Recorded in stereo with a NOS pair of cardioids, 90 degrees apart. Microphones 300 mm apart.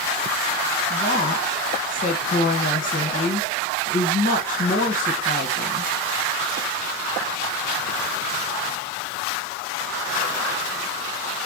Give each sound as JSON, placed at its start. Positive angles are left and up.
{"t": 0.9, "sound": "a woman speaking", "azimuth_deg": 30, "distance_m": 2.5}